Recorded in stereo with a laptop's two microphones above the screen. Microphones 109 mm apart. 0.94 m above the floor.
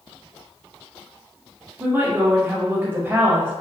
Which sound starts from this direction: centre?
A woman speaking, at 1.8 s.